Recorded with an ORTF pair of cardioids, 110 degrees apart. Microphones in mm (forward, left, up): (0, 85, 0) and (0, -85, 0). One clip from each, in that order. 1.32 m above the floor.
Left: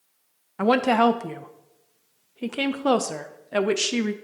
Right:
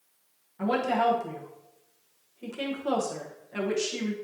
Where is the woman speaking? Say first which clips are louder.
Left 6 dB; 60° left, 0.7 m.